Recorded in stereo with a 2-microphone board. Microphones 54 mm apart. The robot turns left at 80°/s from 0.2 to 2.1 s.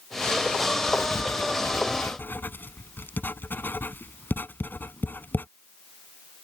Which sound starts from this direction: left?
Writing, at 0.9 s.